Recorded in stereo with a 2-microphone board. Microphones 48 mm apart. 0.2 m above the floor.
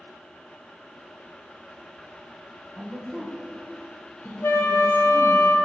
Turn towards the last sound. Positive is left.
turn(degrees=60)  # may be behind; listen again after turning